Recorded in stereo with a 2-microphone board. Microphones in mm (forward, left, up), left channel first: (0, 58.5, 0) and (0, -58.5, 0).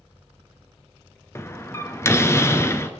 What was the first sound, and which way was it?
A door slam, 25° left (ahead or behind).